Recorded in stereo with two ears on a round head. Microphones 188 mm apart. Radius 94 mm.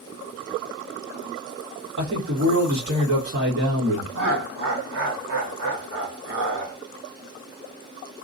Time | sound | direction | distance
2.0 | a man speaking | 60° right (ahead or behind) | 1.3 m
4.2 | laughter | 60° right (ahead or behind) | 1.2 m